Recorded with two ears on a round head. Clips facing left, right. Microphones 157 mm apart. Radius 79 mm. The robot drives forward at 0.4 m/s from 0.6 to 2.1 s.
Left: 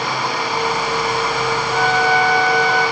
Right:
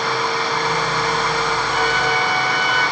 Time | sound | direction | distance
1.7 | a flute | 25° left (ahead or behind) | 6.5 m